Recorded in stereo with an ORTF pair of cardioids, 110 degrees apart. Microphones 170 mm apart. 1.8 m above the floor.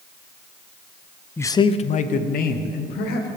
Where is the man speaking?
10° left, 0.7 m; by 3.3 s 70° left, 2 m.